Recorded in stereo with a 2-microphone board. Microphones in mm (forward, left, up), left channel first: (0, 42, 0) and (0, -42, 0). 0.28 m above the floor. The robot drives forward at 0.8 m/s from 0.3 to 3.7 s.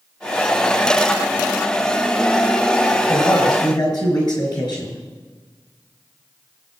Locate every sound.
3.1 s a man speaking: 45° left (ahead or behind), 5 m; by 5.0 s 50° left (ahead or behind), 4.5 m